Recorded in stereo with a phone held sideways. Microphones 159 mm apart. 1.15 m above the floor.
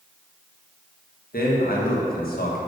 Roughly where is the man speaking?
Left.